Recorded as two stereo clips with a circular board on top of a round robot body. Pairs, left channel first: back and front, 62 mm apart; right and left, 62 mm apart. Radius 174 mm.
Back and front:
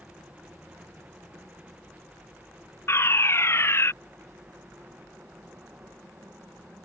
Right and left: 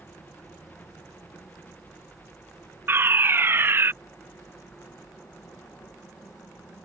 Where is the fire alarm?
140° left.